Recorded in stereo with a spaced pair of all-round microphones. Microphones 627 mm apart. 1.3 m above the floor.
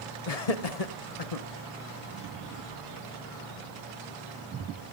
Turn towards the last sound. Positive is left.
turn(degrees=65)  # may be behind; listen again after turning